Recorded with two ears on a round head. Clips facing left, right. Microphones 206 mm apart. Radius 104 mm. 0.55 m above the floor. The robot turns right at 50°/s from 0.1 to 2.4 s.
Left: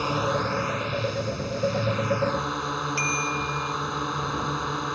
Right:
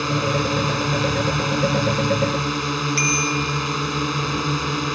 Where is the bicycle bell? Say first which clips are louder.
Right 7 dB; 25° right (ahead or behind).